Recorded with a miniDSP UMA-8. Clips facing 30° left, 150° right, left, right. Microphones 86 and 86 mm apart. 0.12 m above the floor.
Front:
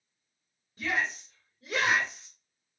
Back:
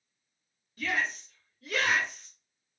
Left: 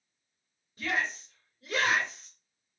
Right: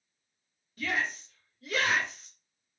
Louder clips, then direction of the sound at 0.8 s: Even, even; 60° left.